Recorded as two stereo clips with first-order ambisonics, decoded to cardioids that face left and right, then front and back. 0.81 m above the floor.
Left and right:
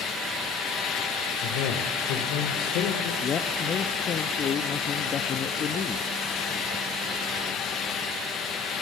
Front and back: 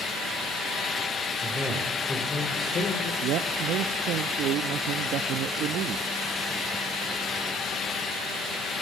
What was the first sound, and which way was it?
A man speaking, 90° left.